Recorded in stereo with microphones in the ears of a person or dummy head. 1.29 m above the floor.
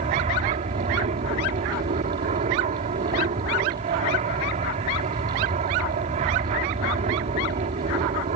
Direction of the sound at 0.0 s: 35° right (ahead or behind).